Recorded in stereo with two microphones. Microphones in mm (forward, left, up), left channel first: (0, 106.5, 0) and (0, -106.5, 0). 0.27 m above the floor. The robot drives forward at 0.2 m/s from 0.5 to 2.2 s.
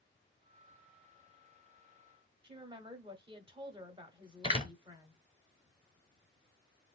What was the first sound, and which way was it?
A woman speaking, 20° right (ahead or behind).